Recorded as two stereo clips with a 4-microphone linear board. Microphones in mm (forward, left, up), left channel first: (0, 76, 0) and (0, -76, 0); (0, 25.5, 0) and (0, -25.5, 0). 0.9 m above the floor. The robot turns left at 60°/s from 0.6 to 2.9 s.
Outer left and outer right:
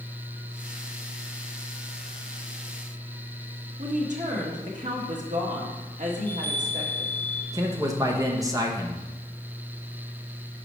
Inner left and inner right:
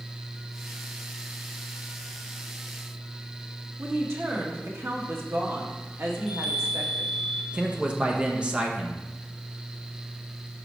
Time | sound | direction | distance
3.8 | a woman speaking | 55° right (ahead or behind) | 1.6 m
6.2 | a chime | 10° left (ahead or behind) | 1.3 m
7.5 | a man speaking | 25° right (ahead or behind) | 1.0 m